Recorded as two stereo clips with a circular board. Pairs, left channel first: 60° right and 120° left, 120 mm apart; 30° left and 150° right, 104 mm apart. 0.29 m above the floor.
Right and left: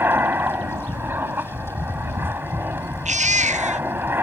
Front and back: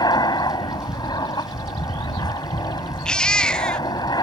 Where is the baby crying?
110° left.